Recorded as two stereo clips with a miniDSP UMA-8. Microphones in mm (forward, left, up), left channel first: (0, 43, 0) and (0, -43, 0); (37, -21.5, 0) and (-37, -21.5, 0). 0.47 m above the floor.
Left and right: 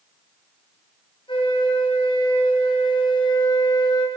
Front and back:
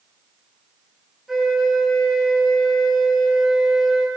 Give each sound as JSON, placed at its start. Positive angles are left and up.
{"t": 1.3, "sound": "a flute", "azimuth_deg": 95, "distance_m": 6.0}